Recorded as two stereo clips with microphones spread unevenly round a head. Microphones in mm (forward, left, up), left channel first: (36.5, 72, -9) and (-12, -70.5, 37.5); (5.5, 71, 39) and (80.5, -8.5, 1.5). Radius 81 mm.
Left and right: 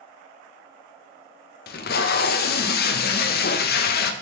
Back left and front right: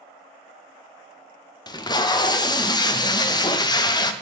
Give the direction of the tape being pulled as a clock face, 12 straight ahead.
10 o'clock.